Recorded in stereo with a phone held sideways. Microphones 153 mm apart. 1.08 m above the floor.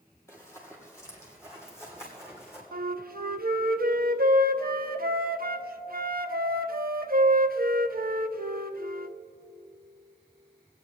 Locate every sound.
0.3 s running footsteps: 20° left (ahead or behind), 2 m; by 2.6 s 15° left (ahead or behind), 3.5 m
2.7 s a flute: 70° right (ahead or behind), 0.5 m